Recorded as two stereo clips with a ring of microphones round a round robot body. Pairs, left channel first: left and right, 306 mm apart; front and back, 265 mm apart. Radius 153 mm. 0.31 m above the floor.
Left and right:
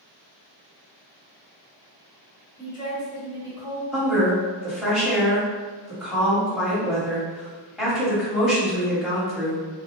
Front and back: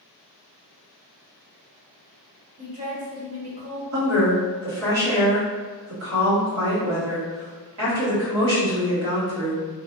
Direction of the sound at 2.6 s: 140° left.